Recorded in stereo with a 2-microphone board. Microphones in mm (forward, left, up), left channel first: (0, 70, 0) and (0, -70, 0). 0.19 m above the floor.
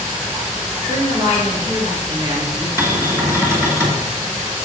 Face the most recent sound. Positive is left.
turn(degrees=-20)  # may be behind; listen again after turning